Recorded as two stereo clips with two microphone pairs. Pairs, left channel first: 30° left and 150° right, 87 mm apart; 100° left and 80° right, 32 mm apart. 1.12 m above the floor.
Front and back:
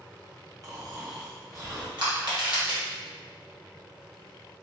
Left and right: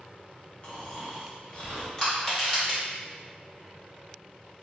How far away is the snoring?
About 1.1 m.